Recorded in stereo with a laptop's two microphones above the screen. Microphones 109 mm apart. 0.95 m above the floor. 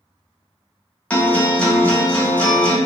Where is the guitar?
15° left (ahead or behind), 0.8 m.